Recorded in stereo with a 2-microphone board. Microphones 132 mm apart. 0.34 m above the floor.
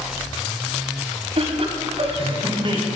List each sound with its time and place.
1.4 s laughter: 55° right (ahead or behind), 2 m; by 2.8 s 40° right (ahead or behind), 2.5 m